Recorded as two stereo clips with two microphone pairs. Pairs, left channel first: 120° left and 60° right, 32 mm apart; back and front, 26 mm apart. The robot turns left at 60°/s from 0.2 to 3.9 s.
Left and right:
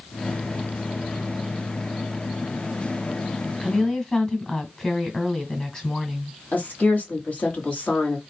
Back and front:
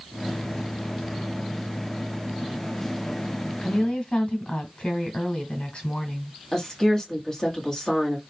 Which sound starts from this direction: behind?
A woman speaking, at 3.6 s.